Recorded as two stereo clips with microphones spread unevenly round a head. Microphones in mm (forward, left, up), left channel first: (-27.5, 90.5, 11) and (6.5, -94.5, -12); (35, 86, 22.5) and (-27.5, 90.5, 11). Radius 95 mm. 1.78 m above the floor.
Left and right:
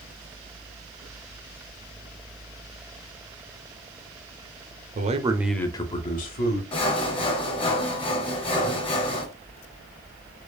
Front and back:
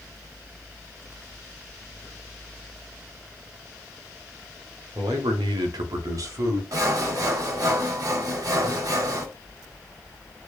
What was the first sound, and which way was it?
A man speaking, 130° right.